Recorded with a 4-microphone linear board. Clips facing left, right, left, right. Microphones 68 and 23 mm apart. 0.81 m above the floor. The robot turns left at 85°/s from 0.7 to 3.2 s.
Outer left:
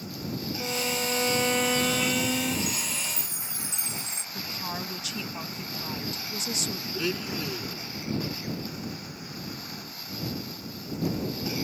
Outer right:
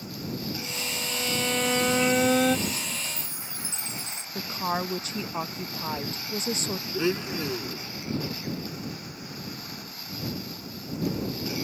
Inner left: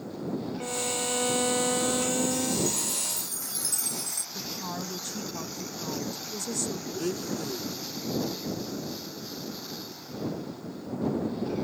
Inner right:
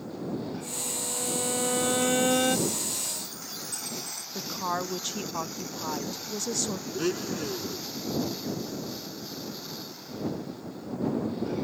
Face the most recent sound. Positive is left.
turn(degrees=-25)  # may be behind; listen again after turning